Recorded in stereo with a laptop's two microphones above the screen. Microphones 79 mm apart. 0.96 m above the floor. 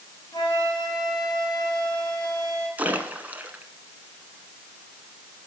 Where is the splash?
20° right (ahead or behind), 1.7 m.